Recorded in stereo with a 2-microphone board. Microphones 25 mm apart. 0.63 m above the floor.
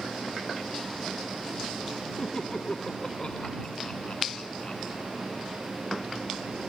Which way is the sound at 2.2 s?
30° left (ahead or behind).